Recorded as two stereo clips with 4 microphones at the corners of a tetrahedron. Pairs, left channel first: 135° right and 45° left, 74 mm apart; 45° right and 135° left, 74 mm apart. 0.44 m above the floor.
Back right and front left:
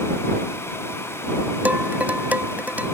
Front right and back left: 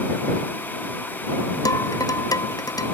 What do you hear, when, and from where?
1.6 s dishes clattering: 20° right